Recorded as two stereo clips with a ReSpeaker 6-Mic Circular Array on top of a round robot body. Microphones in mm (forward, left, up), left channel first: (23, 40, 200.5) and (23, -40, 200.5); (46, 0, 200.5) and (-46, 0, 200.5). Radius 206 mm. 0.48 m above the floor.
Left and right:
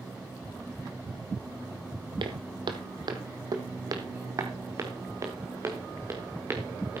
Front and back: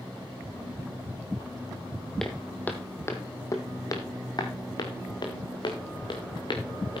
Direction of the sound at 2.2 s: 85° right.